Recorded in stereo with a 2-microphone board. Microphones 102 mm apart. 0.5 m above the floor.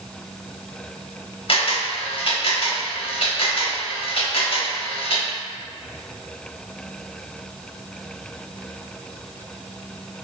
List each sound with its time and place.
1.5 s a camera shutter: 55° left (ahead or behind), 0.7 m